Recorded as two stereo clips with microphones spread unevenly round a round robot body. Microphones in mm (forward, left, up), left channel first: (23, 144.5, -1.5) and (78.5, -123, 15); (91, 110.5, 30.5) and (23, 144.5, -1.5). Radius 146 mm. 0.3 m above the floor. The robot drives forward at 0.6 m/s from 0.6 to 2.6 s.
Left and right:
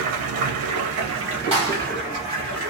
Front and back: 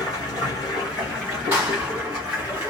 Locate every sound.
0.0 s running water: 85° right, 0.8 m; by 2.7 s 150° right, 1.4 m
1.5 s a clap: 145° right, 2.0 m; by 1.9 s 150° right, 2 m